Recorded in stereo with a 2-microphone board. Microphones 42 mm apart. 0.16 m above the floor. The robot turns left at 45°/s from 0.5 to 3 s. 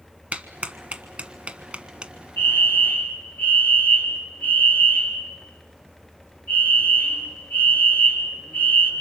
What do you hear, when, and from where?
0.3 s a clap: 35° right (ahead or behind), 1.3 m; by 2.1 s 20° right (ahead or behind), 1.3 m
2.4 s a fire alarm: 65° left (ahead or behind), 4 m; by 8.9 s 45° left (ahead or behind), 4 m